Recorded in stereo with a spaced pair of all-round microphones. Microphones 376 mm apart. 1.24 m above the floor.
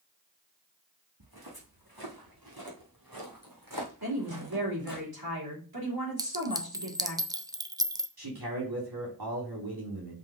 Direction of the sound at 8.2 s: 85° right.